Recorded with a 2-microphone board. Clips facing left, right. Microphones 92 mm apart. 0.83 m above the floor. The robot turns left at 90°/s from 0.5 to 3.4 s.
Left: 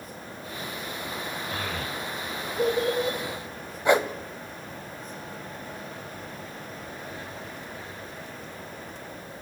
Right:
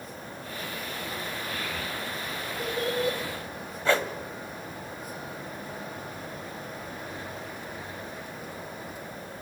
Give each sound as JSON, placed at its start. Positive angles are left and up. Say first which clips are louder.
{"t": 1.5, "sound": "a child speaking", "louder": "left 2 dB", "side_deg": 40, "distance_m": 3.0}
{"t": 3.9, "sound": "a whoosh", "louder": "left 4 dB", "side_deg": 15, "distance_m": 1.2}